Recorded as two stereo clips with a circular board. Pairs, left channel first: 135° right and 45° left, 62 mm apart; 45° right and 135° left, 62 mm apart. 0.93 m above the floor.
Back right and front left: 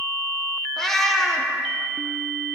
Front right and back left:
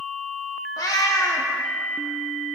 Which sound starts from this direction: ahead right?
A cat meowing, at 0.8 s.